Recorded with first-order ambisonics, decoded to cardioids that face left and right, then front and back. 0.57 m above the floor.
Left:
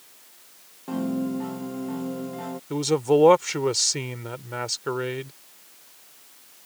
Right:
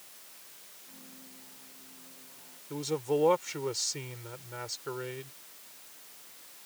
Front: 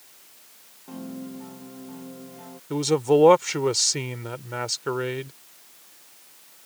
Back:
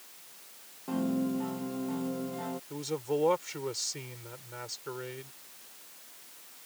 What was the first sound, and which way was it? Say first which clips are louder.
A piano: left 29 dB, back 6 dB; 110° left.